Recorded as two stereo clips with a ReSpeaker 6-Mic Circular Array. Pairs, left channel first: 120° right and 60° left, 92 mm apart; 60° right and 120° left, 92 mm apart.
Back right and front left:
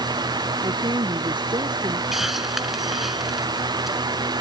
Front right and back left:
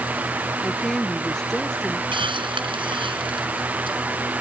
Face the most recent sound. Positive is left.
turn(degrees=145)